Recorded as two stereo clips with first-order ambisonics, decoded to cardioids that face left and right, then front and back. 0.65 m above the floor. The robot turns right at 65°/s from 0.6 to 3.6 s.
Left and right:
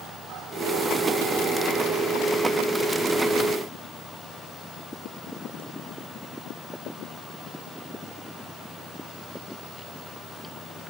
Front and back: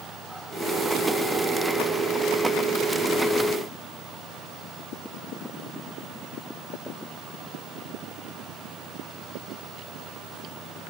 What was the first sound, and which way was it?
Only background noise.